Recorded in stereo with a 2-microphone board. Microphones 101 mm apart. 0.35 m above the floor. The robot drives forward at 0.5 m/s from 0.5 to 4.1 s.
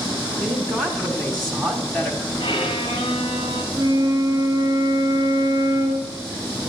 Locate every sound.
0.4 s a woman speaking: 5° left (ahead or behind), 3.5 m
2.4 s a violin: 70° left (ahead or behind), 2 m; by 3.6 s 65° left (ahead or behind), 2 m
3.7 s a flute: 35° right (ahead or behind), 2 m